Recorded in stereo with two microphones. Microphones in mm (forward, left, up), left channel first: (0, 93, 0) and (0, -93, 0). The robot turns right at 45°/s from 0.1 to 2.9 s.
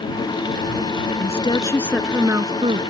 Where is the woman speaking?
140° left; by 2.8 s 145° right.